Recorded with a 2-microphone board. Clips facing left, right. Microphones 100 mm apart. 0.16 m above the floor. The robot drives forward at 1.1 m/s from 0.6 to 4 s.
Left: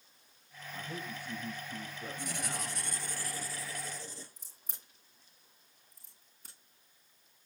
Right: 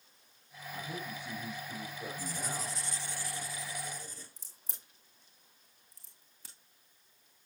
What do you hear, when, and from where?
0.7 s a man speaking: 60° right (ahead or behind), 6.5 m; by 2.9 s 75° right (ahead or behind), 6 m
2.2 s writing: 70° left (ahead or behind), 0.9 m; by 4.3 s 25° left (ahead or behind), 2 m
4.4 s a crack: 85° right, 2.5 m